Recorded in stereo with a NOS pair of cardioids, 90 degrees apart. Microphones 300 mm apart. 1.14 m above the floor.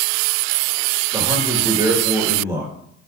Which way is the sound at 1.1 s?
10° right.